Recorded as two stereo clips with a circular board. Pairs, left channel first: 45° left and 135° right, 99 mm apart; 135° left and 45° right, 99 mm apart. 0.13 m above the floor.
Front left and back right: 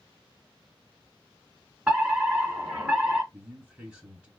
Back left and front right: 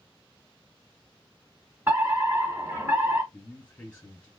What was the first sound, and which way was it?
A fire alarm, 65° right.